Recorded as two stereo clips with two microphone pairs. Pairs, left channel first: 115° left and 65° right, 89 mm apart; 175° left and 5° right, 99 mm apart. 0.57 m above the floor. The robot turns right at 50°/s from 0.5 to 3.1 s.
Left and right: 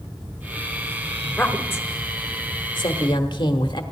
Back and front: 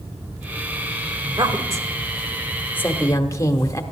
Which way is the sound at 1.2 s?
30° left.